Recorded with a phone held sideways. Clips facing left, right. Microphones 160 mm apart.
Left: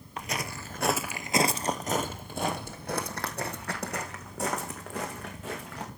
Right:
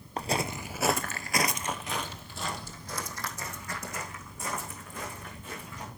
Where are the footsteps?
35° right (ahead or behind), 1.0 m; by 5.9 s 75° left (ahead or behind), 4 m.